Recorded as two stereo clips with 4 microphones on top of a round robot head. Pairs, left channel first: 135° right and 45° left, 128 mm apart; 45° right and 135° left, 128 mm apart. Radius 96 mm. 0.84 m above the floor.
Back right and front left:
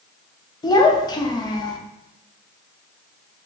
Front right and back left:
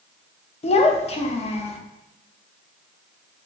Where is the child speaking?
80° right, 0.5 m.